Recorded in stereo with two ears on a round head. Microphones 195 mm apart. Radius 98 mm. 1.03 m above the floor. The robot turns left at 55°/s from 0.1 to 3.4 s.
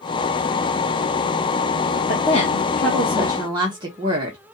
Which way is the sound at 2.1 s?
45° left.